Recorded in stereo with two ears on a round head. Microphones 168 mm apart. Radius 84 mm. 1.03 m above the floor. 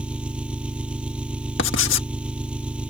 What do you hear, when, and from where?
0.0 s an engine running: 5° right (ahead or behind)
1.6 s writing: 70° left (ahead or behind)